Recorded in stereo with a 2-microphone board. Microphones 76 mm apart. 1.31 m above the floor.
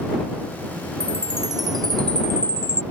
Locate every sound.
1.0 s a chime: 65° right (ahead or behind)